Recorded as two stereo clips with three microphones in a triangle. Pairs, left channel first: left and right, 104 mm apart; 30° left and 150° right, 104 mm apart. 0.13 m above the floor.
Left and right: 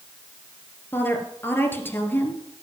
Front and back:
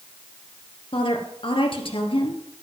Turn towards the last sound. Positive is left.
turn(degrees=25)